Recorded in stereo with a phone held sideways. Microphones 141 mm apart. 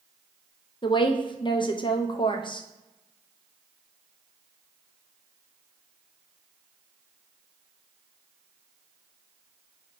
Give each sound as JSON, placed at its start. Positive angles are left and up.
{"t": 0.8, "sound": "a woman speaking", "side_deg": 35, "distance_m": 0.5}